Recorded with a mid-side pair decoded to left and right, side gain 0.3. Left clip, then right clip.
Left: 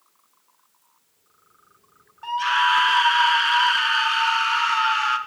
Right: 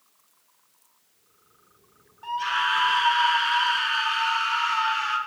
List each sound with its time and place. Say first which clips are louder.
2.2 s a scream: left 5 dB; 60° left, 1.1 m